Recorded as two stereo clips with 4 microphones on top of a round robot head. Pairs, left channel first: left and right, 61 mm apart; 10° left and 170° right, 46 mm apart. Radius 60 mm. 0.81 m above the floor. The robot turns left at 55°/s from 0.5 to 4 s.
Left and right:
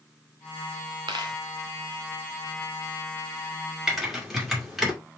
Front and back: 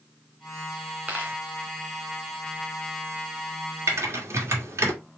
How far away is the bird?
I don't hear a bird.